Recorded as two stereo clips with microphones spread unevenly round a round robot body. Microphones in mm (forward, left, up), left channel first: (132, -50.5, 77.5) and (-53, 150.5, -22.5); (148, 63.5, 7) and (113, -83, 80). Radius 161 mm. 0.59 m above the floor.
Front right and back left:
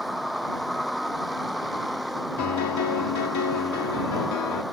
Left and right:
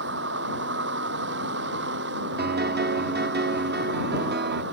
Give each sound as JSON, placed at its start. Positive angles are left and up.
{"t": 0.0, "sound": "a vehicle", "azimuth_deg": -135}
{"t": 2.4, "sound": "a piano", "azimuth_deg": -85}